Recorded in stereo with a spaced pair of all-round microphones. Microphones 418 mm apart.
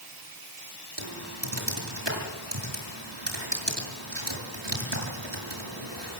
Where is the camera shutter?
I don't hear a camera shutter.